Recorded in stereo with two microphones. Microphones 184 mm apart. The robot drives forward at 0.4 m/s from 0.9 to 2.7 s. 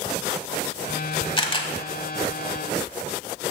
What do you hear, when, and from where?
1.4 s a camera shutter: 25° left (ahead or behind), 0.9 m; by 1.7 s 30° left (ahead or behind), 0.9 m